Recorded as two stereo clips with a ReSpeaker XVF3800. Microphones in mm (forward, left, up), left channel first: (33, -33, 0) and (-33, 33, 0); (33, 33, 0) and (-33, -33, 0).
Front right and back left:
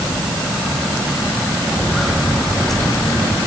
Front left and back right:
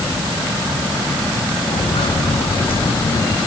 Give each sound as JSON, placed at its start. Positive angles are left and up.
{"t": 1.7, "sound": "footsteps", "azimuth_deg": 45}